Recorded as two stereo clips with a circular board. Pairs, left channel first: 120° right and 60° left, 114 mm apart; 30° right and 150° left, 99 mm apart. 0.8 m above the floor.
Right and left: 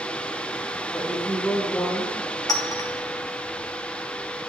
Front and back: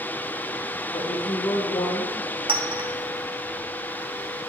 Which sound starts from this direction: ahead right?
A woman speaking, at 0.9 s.